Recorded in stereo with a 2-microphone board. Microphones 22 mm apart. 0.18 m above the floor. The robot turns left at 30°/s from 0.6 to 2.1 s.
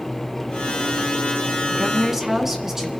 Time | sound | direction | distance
1.7 | a woman speaking | 25° right (ahead or behind) | 2 m